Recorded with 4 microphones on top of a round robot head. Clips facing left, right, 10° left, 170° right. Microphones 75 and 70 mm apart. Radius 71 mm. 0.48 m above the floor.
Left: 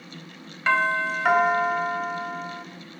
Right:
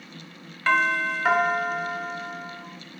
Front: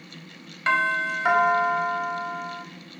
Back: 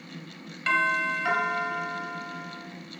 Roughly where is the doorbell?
Ahead.